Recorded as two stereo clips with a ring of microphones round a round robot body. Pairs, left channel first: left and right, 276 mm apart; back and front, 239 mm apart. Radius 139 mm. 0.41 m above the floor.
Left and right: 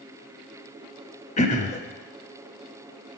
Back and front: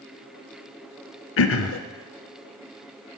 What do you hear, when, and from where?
1.4 s throat clearing: 155° left, 0.6 m